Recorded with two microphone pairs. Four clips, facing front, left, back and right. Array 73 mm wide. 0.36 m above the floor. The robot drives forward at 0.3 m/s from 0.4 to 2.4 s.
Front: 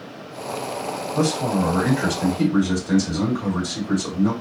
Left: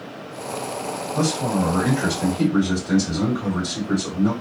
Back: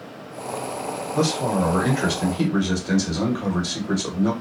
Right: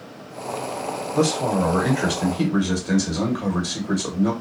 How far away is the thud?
No thud in this recording.